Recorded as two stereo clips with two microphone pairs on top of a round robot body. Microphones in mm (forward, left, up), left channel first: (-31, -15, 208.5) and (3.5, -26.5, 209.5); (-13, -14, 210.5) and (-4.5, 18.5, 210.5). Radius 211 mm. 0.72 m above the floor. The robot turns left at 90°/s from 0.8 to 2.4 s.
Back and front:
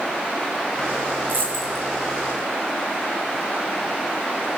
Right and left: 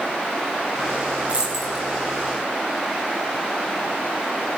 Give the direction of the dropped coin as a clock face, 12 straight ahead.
11 o'clock.